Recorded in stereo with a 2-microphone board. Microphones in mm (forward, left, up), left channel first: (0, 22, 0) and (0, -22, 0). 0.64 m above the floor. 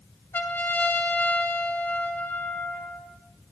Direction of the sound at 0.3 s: 70° left (ahead or behind).